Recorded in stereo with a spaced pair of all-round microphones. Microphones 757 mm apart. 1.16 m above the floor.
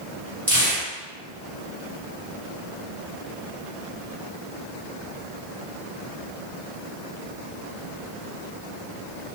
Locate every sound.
0.5 s tearing paper: 35° right (ahead or behind), 1.0 m